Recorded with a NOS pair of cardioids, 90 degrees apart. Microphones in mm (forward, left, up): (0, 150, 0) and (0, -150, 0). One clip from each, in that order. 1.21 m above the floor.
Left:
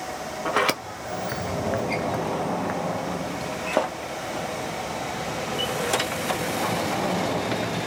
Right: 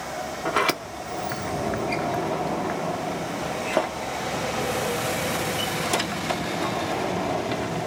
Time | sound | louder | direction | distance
0.5 | a sliding door | even | straight ahead | 0.6 m